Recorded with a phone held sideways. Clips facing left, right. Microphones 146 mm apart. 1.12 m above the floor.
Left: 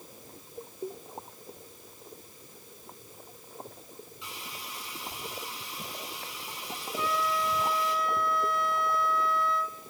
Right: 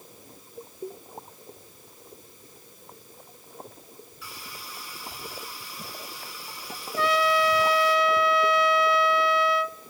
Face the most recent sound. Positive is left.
turn(degrees=-75)  # may be behind; listen again after turning